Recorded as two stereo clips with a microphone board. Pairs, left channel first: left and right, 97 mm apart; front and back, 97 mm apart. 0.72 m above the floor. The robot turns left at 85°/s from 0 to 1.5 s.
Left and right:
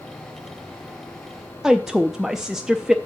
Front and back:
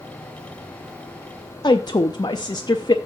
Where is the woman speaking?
5° right, 0.6 m.